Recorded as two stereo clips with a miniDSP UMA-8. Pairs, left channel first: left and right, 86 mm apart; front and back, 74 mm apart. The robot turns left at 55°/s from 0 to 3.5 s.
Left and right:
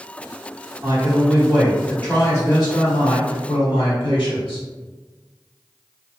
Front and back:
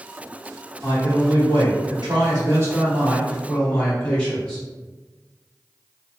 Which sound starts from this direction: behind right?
A man speaking, at 0.8 s.